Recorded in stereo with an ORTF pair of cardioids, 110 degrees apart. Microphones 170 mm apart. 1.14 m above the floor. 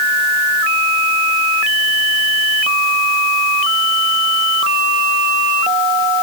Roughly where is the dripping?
No dripping in this recording.